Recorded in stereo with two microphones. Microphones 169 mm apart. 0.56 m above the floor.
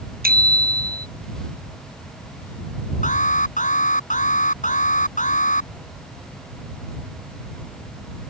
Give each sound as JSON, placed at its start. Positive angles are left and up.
{"t": 0.2, "sound": "a bicycle bell", "side_deg": -65}
{"t": 3.0, "sound": "an alarm", "side_deg": 50}